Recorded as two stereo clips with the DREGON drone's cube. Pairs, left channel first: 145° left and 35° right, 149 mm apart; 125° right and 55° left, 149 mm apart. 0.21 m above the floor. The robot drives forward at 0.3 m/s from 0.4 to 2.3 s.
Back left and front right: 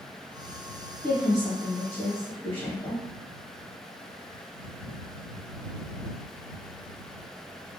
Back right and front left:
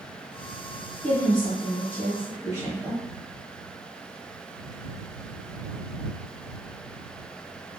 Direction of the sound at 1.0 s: 160° right.